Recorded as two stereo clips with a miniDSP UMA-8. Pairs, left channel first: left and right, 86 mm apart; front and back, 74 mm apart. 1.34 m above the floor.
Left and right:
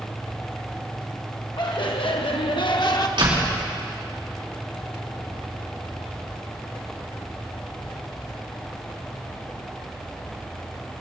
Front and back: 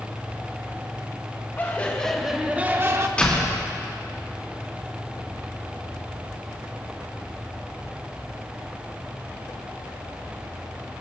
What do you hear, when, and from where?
1.6 s laughter: 60° left, 1.2 m; by 3.1 s 130° left, 1.3 m
3.2 s a door slam: 75° right, 3 m